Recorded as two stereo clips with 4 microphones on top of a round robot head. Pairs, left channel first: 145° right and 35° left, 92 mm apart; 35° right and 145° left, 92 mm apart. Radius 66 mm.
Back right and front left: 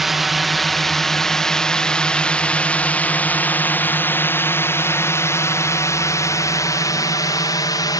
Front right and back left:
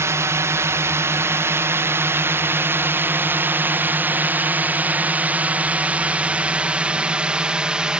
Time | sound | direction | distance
0.0 | a drone | 120° left | ?